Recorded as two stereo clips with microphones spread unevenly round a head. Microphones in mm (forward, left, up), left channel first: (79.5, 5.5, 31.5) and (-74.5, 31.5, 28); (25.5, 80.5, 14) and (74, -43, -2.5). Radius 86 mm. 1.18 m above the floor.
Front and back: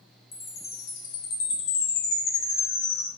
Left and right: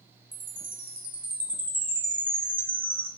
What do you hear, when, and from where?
0.3 s a chime: 10° left, 0.6 m